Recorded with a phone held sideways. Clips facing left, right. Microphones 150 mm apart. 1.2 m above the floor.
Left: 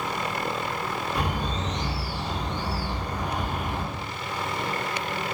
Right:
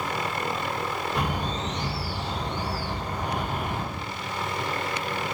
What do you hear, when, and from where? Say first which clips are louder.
1.1 s a bird: even; 70° right (ahead or behind), 1.7 m